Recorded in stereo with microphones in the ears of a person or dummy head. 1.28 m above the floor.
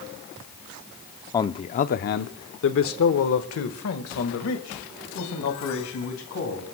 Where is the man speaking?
15° left (ahead or behind), 0.5 m; by 6.7 s 75° left (ahead or behind), 3 m.